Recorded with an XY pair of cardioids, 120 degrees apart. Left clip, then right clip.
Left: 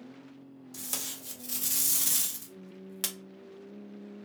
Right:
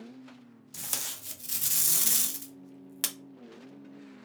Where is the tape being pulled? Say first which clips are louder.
Right 2 dB; 20° right, 0.5 m.